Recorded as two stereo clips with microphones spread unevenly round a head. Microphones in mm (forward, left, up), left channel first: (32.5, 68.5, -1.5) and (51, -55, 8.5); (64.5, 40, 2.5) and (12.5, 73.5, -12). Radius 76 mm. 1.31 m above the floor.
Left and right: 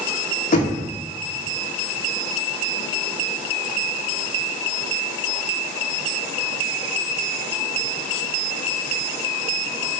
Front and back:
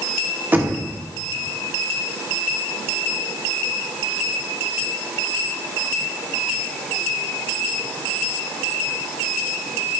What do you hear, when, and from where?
0.5 s knocking: 85° left, 1.4 m